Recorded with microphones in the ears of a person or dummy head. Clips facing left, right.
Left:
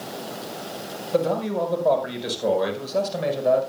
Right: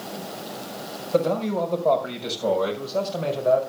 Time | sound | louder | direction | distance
1.1 | a man speaking | even | centre (ahead or behind) | 4.5 m